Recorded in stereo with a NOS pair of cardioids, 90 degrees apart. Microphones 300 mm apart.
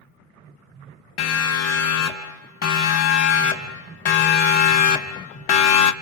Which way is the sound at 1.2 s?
65° left.